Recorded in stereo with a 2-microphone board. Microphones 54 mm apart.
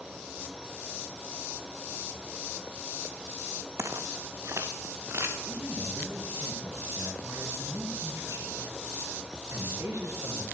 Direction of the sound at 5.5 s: 65° right (ahead or behind).